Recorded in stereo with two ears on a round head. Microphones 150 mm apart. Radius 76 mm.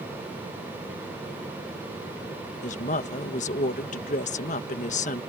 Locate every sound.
2.6 s a woman speaking: 45° left (ahead or behind)